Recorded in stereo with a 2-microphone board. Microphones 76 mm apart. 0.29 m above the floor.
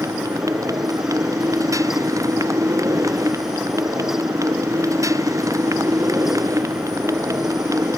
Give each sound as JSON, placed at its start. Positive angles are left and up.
{"t": 0.0, "sound": "a motorcycle", "side_deg": -45}